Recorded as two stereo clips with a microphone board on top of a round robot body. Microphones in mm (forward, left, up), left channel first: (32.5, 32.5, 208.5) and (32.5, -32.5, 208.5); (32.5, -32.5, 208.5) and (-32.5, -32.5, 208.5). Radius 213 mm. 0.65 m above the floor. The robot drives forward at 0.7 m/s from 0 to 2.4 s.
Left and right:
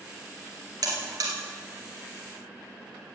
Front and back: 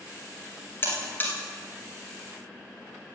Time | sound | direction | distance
0.8 | a buzzer | 55° right | 2.5 m